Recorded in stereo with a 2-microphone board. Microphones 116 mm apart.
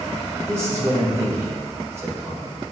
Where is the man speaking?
25° right (ahead or behind), 2 m.